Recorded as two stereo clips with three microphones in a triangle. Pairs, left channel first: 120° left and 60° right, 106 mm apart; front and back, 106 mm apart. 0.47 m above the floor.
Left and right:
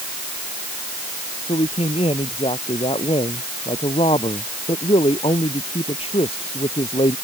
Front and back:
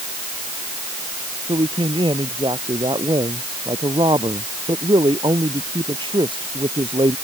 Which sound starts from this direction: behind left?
A man speaking, at 1.5 s.